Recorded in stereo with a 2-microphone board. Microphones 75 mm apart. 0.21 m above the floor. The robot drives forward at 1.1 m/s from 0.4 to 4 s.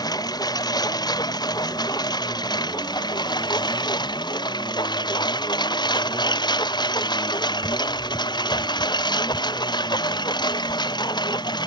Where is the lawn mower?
60° left (ahead or behind); by 11.7 s 70° left (ahead or behind).